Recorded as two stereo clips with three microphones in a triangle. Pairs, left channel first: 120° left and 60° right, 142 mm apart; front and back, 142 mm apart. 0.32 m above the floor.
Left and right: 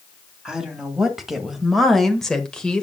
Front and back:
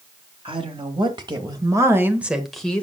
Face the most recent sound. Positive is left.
turn(degrees=55)